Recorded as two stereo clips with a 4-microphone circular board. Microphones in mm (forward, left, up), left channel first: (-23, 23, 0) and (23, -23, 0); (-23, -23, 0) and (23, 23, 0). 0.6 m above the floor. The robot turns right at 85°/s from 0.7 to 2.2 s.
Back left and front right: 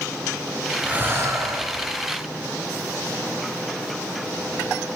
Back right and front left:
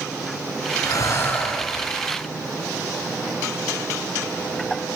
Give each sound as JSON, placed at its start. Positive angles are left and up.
{"t": 0.8, "sound": "breathing", "azimuth_deg": -120, "distance_m": 1.4}